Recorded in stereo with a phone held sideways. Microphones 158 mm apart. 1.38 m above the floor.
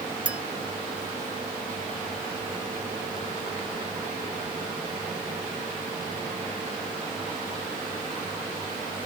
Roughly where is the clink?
Centre.